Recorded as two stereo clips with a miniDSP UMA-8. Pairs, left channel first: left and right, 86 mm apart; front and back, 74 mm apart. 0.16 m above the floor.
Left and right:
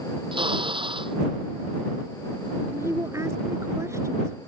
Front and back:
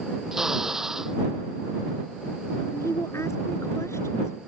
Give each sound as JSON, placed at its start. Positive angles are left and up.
{"t": 0.3, "sound": "a drill", "azimuth_deg": -100}
{"t": 2.7, "sound": "a woman speaking", "azimuth_deg": -40}